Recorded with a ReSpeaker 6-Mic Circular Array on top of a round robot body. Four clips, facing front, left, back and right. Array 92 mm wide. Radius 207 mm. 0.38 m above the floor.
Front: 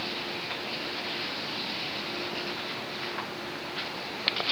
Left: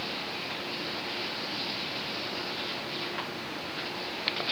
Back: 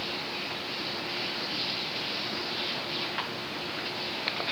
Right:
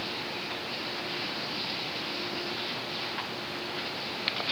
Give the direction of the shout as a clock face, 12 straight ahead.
I don't hear a shout.